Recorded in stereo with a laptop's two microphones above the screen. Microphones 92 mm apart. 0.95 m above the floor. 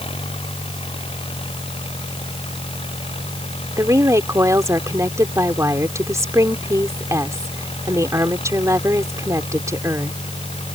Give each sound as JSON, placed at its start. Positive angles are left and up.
{"t": 0.0, "sound": "an engine running", "side_deg": 85}
{"t": 3.8, "sound": "a woman speaking", "side_deg": -35}